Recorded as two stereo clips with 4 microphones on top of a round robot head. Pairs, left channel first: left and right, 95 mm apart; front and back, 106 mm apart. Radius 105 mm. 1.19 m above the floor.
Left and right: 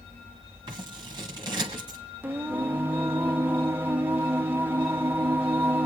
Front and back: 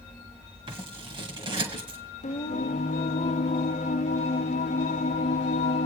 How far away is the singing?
About 0.5 m.